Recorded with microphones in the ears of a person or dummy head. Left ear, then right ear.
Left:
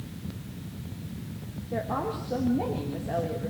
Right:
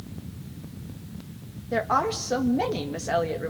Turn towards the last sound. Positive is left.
turn(degrees=-70)  # may be behind; listen again after turning